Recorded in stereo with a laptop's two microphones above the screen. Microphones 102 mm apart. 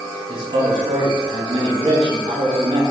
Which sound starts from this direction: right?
A man speaking, at 0.3 s.